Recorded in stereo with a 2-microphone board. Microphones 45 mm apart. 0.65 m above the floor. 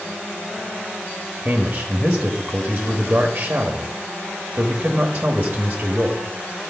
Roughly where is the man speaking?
Right.